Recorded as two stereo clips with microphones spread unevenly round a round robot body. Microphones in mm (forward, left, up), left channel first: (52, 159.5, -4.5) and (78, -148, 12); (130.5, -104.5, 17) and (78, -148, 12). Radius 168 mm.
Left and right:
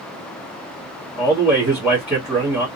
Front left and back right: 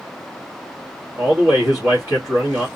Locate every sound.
1.2 s a man speaking: 175° right, 1.5 m